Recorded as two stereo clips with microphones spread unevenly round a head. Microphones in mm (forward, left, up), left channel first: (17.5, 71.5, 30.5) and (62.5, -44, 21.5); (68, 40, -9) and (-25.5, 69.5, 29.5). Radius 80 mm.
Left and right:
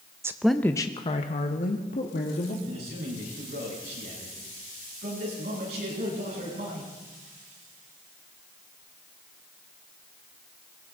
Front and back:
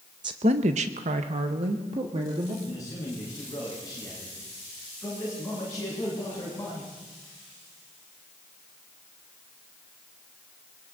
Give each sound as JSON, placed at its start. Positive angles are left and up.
{"t": 0.2, "sound": "a woman speaking", "azimuth_deg": -135, "distance_m": 0.7}
{"t": 2.6, "sound": "a man speaking", "azimuth_deg": -90, "distance_m": 8.5}